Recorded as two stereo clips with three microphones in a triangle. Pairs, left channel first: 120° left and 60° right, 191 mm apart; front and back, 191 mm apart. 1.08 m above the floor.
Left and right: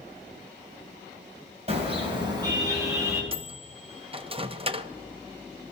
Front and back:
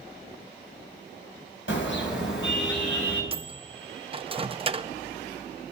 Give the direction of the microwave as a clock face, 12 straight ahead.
4 o'clock.